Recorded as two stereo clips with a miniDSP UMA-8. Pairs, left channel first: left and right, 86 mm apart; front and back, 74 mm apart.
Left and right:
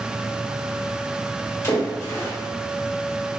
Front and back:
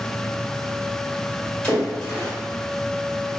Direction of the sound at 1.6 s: 55° left.